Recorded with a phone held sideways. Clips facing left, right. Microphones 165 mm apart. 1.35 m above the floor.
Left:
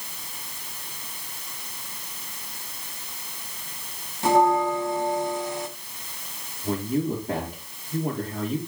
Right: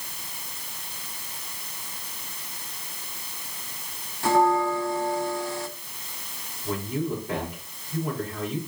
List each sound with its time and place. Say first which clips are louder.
4.2 s a bell: left 1 dB; 20° left (ahead or behind), 1.2 m
6.6 s a man speaking: left 3 dB; 40° left (ahead or behind), 3 m